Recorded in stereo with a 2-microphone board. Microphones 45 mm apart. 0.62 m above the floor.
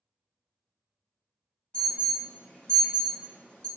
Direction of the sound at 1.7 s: 20° left (ahead or behind).